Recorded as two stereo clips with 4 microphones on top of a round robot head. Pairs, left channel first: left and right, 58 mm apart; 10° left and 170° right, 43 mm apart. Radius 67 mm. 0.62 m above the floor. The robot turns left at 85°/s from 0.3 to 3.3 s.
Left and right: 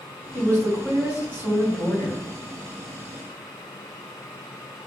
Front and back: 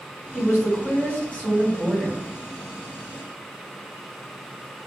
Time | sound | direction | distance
0.3 | a woman speaking | 45° left | 1.8 m